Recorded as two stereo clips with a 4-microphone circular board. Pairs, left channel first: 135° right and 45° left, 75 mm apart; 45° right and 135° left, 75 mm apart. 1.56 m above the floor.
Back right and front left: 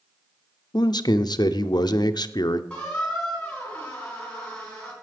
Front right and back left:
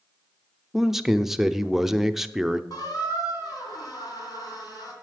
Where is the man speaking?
140° right, 0.6 m.